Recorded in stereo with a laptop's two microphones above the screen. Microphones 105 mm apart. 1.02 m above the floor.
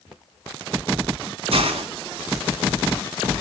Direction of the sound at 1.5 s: 65° right (ahead or behind).